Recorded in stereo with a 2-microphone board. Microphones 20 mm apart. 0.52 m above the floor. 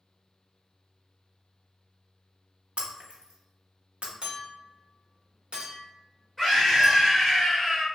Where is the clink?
50° right (ahead or behind), 1.1 m.